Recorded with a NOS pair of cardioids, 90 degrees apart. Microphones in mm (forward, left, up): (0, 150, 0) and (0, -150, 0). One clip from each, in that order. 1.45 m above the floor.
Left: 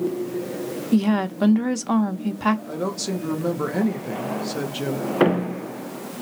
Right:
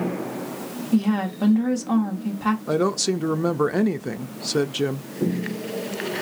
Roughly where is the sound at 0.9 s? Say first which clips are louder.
Left 1 dB; ahead left.